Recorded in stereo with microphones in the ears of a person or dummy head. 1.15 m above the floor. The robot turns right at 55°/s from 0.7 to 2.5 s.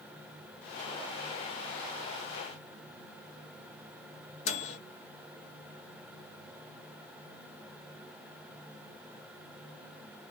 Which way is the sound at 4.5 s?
45° left (ahead or behind).